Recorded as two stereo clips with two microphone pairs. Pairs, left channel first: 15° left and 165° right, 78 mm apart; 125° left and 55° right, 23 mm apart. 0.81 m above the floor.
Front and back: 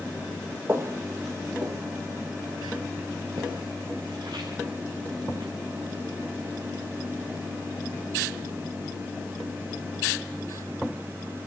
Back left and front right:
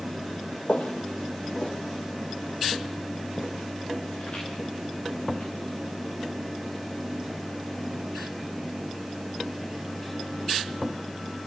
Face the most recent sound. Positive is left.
turn(degrees=170)